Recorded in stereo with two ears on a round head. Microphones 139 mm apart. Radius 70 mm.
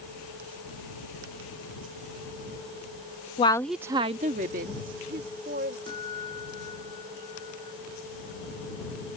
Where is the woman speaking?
35° left (ahead or behind); by 5.8 s 75° right (ahead or behind).